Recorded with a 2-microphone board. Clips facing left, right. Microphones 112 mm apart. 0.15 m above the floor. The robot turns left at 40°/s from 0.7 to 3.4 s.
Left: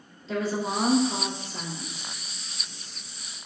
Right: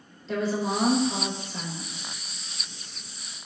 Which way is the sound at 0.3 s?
175° left.